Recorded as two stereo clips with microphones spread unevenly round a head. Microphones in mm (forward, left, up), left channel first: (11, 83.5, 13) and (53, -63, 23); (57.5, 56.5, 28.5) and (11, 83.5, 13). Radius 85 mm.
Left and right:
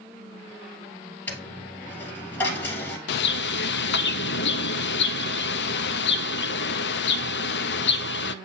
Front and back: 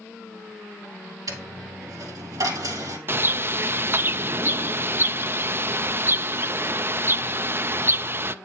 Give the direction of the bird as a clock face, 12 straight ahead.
9 o'clock.